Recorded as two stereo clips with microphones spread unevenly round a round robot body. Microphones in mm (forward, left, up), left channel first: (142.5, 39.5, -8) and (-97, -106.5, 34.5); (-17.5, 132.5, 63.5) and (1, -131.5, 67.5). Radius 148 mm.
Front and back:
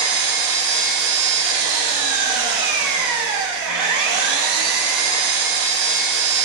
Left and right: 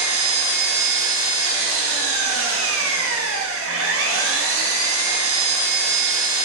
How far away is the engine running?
About 1.0 m.